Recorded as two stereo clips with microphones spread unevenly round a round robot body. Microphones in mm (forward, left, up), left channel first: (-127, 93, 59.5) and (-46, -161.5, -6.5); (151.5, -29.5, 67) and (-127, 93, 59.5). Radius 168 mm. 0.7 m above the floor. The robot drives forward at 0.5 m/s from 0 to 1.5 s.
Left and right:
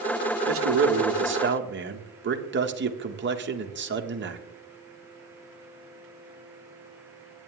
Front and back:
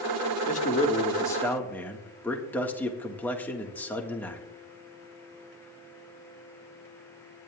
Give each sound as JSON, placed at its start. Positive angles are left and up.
{"t": 0.5, "sound": "a man speaking", "azimuth_deg": -85, "distance_m": 1.5}